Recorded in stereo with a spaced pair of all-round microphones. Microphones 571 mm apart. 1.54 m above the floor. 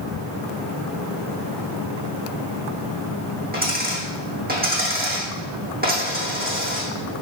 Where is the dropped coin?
15° right (ahead or behind), 3.5 m.